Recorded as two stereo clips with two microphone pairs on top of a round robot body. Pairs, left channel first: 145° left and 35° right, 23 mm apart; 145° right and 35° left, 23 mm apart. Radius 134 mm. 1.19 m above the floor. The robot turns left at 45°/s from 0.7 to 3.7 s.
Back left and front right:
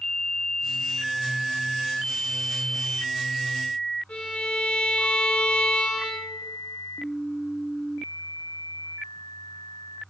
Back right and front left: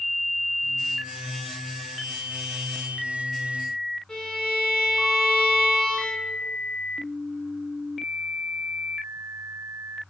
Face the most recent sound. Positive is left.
turn(degrees=160)